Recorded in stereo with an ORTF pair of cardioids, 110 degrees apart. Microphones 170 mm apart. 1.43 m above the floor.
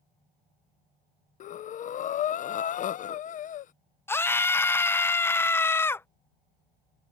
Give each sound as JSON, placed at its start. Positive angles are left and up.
{"t": 1.4, "sound": "breathing", "azimuth_deg": 50}
{"t": 4.1, "sound": "a scream", "azimuth_deg": 15}